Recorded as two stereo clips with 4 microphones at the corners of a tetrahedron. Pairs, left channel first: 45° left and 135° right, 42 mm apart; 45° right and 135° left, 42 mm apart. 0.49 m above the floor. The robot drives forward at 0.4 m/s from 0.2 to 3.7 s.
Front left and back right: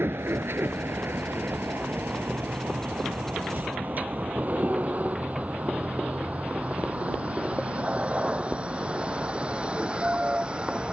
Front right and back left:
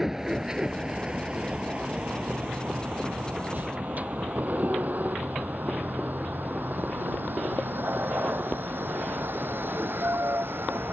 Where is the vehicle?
145° right; by 10.9 s 160° left.